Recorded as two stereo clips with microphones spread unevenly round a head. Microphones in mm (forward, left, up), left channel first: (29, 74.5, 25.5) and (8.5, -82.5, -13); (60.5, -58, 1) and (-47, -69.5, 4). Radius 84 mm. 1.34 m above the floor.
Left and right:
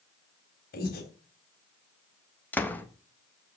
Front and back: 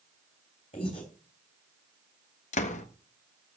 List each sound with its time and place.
0.7 s breathing: 60° left, 3.5 m
2.5 s a door slam: 5° left, 1.3 m